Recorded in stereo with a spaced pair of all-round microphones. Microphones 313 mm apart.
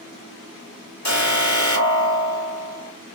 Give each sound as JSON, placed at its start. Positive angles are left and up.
{"t": 1.1, "sound": "an alarm", "side_deg": 65, "distance_m": 1.5}